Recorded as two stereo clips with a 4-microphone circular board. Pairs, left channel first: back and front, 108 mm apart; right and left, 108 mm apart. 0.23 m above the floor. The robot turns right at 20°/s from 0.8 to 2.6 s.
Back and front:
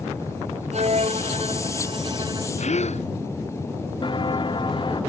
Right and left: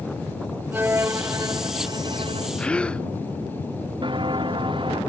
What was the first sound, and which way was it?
A violin, 20° left.